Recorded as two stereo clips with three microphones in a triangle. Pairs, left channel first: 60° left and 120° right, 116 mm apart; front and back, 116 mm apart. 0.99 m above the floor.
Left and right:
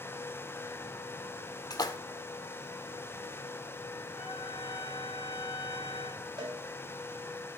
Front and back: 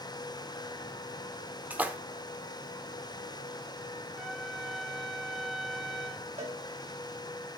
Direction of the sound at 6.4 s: 170° right.